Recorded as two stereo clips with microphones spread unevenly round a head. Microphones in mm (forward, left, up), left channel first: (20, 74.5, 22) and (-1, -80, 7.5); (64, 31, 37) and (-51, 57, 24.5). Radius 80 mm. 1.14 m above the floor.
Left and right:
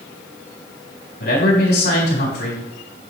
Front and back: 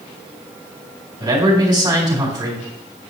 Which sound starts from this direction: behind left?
A man speaking, at 1.2 s.